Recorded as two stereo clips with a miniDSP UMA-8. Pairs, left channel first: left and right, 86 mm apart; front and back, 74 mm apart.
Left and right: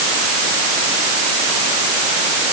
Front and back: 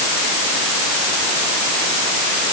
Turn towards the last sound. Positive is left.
No sound to turn to.